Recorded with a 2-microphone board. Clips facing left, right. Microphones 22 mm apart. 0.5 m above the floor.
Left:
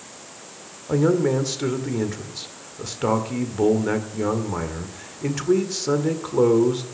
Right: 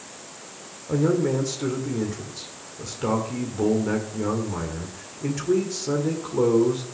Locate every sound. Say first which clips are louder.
0.9 s a man speaking: left 3 dB; 30° left (ahead or behind), 1.8 m